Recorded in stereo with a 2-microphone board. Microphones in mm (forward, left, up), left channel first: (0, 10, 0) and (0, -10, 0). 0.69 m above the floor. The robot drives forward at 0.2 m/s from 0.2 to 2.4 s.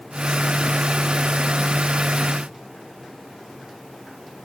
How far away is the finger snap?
No finger snap in this recording.